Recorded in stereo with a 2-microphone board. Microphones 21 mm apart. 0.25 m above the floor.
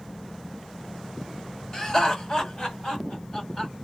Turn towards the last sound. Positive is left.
turn(degrees=35)  # may be behind; listen again after turning